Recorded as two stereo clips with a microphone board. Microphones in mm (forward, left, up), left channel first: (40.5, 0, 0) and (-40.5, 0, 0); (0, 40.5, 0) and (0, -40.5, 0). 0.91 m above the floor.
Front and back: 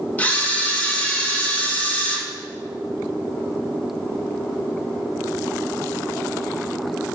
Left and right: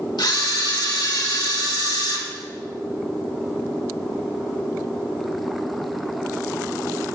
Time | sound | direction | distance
0.2 | a camera shutter | 70° left | 1.4 m